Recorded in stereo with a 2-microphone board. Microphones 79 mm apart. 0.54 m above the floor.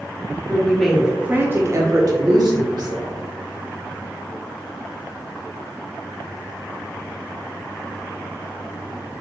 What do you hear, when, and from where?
0.5 s a woman speaking: 20° left (ahead or behind), 0.7 m; by 3.2 s 65° right (ahead or behind), 1.5 m